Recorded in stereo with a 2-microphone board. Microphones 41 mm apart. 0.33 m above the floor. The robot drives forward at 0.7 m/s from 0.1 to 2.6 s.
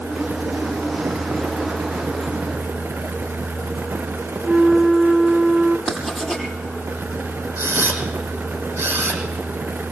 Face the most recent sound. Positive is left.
turn(degrees=-75)  # may be behind; listen again after turning